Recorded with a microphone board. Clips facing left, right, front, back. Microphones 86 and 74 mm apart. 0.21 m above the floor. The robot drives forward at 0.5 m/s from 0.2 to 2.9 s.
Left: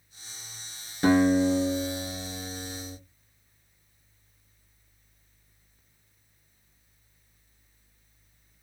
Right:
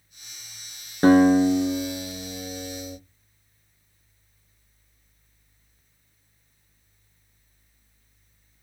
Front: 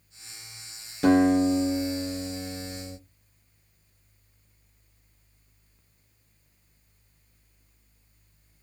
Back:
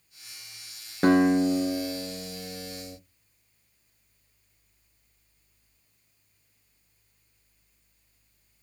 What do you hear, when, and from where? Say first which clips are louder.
1.0 s a guitar: right 5 dB, front 1 dB; 135° right, 1.1 m; by 3.0 s 155° right, 1.8 m